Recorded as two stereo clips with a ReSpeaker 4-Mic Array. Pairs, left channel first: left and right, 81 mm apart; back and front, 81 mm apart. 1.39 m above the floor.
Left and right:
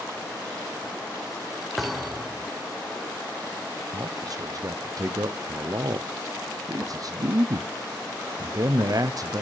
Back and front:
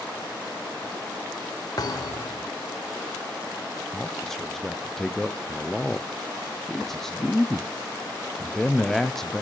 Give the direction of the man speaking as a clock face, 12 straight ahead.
3 o'clock.